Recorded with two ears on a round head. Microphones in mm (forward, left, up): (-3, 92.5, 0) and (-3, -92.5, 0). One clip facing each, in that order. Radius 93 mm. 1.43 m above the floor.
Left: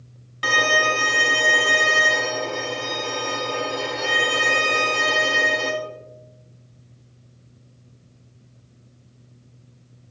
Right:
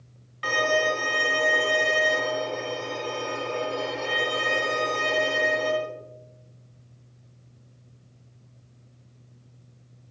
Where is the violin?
70° left (ahead or behind), 3 m.